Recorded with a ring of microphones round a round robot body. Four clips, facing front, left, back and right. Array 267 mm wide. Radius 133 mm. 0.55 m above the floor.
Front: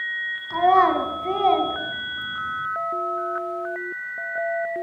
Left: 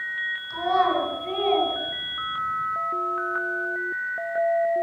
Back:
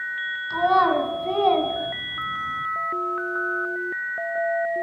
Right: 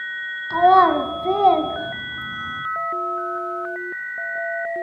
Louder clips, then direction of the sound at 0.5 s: Right 9 dB, front 2 dB; 75° right.